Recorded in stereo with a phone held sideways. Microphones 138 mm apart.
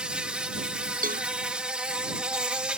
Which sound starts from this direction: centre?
An insect, at 0.0 s.